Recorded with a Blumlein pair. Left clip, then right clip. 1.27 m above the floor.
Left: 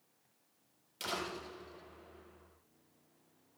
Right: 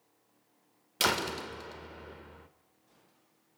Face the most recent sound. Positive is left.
turn(degrees=-55)